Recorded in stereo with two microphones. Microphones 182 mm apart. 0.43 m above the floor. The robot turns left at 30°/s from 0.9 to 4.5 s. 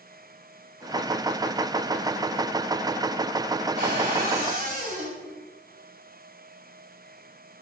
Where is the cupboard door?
65° right (ahead or behind), 2 m; by 5.2 s 55° right (ahead or behind), 2 m.